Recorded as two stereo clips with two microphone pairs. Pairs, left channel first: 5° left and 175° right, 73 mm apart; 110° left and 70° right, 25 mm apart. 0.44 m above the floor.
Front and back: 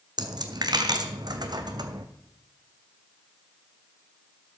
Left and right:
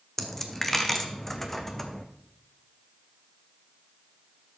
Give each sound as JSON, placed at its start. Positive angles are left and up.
{"t": 0.2, "sound": "a dropped coin", "azimuth_deg": -175, "distance_m": 1.0}